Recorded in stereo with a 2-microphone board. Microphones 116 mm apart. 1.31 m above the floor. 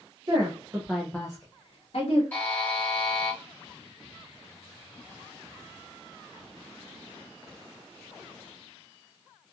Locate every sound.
0.3 s a woman speaking: 40° right (ahead or behind), 1.0 m; by 2.2 s 70° left (ahead or behind), 1.1 m
2.3 s a buzzer: 15° left (ahead or behind), 1.4 m